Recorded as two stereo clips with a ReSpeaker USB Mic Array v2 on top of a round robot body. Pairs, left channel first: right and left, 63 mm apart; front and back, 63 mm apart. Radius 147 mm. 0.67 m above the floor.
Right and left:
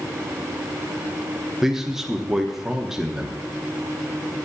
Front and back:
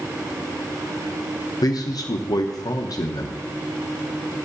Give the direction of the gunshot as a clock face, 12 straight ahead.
No gunshot in this recording.